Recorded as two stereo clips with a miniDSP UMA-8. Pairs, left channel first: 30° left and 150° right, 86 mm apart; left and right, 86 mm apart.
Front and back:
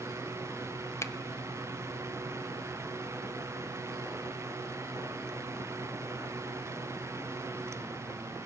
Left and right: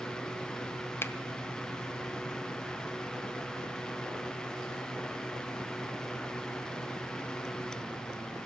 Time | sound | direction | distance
1.0 | a finger snap | 50° left | 0.6 m